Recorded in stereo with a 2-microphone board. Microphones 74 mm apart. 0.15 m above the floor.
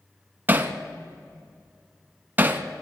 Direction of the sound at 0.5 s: 25° right (ahead or behind).